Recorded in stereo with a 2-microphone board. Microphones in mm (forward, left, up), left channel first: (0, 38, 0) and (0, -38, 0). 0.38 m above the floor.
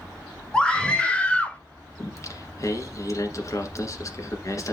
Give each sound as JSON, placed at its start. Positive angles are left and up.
{"t": 0.5, "sound": "a scream", "side_deg": 10, "distance_m": 1.3}
{"t": 2.0, "sound": "singing", "side_deg": 45, "distance_m": 1.6}